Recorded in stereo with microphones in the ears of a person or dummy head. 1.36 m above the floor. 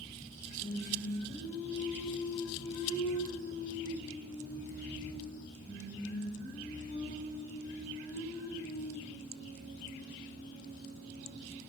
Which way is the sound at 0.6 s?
45° right (ahead or behind).